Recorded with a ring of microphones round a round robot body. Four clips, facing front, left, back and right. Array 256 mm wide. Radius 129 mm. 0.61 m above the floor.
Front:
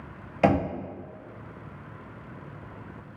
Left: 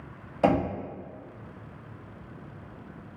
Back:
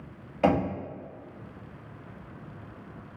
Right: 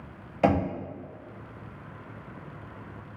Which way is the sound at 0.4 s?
10° right.